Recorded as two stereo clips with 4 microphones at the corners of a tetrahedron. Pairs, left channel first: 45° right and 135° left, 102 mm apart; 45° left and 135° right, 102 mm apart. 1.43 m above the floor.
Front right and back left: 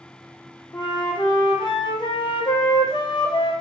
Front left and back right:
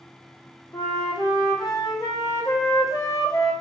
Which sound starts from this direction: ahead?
A flute, at 0.7 s.